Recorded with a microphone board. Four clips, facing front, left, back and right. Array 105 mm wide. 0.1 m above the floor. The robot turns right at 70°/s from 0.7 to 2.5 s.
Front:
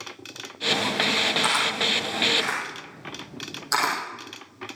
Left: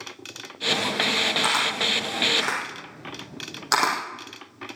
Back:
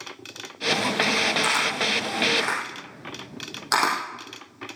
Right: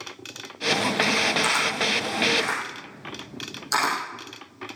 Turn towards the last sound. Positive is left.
turn(degrees=120)